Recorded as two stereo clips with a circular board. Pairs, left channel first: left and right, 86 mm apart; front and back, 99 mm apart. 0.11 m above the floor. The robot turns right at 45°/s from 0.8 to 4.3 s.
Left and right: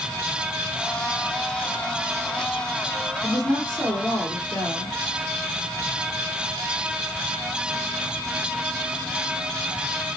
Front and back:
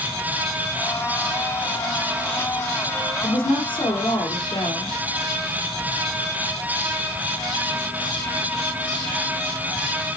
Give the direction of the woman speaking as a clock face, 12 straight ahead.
12 o'clock.